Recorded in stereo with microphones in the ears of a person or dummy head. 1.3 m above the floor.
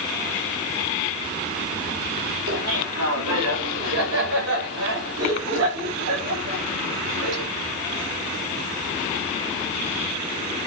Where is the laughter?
90° right, 3 m.